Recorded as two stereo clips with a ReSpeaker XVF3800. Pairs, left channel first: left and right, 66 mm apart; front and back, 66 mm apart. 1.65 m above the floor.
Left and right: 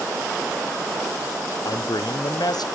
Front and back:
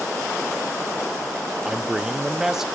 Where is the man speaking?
95° left, 0.6 m.